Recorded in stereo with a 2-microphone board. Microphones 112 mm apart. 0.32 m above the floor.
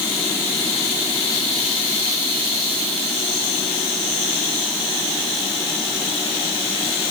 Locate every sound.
Only background noise.